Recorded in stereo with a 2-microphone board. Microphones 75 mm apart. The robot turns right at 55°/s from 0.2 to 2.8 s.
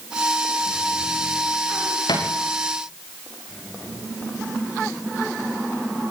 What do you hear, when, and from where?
2.1 s a thud: 85° left, 7 m; by 2.3 s 75° left (ahead or behind), 7 m